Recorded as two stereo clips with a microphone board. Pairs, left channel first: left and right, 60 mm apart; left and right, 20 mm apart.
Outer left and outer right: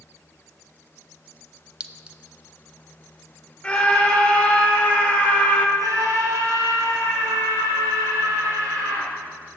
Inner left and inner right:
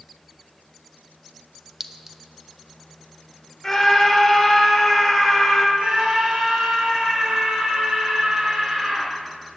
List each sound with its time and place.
1.8 s a clink: 20° right (ahead or behind), 0.6 m
3.6 s a scream: 20° left (ahead or behind), 1.4 m
5.8 s a scream: 75° right (ahead or behind), 3.5 m